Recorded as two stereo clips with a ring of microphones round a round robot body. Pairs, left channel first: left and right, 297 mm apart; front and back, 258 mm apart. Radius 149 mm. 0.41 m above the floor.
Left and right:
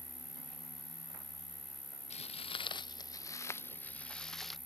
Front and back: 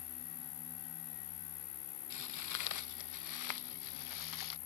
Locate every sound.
0.0 s an insect: 5° right
2.1 s footsteps: 20° left; by 4.6 s straight ahead